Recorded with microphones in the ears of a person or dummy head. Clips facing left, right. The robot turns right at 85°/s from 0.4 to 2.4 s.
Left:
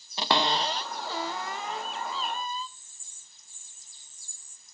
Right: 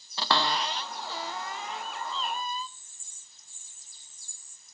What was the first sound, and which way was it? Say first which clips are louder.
A cupboard door: left 2 dB; 15° left (ahead or behind).